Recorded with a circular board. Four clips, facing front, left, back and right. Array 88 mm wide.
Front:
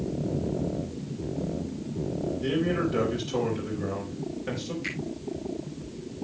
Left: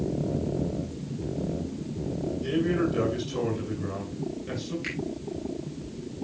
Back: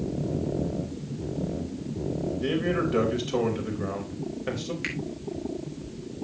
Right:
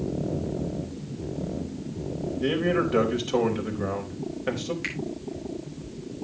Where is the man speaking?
110° right, 4 m.